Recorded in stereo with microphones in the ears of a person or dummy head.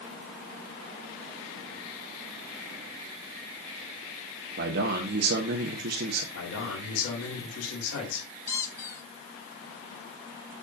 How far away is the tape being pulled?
I don't hear tape being pulled.